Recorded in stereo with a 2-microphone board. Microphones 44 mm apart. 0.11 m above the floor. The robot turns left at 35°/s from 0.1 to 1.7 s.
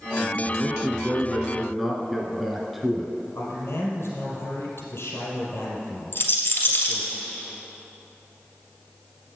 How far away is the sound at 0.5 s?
About 1.2 m.